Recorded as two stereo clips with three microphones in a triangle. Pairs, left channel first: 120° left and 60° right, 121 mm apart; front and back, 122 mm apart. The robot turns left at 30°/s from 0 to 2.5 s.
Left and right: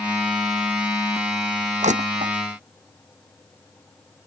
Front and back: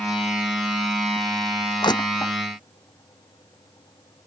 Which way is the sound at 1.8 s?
50° right.